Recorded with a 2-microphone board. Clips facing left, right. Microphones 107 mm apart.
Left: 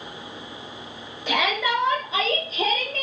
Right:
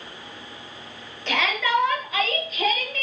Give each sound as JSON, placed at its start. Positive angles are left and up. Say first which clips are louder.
{"t": 1.3, "sound": "a shout", "louder": "even", "side_deg": 10, "distance_m": 5.5}